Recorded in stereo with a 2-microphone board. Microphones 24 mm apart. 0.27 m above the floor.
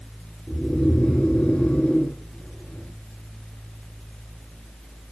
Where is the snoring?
65° left (ahead or behind), 4.5 m.